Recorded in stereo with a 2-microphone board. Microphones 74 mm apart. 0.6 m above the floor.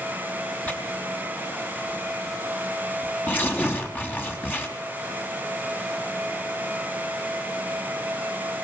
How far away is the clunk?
No clunk in this recording.